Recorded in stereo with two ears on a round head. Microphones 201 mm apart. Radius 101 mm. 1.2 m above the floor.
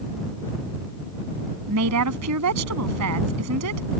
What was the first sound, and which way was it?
A woman speaking, 80° right.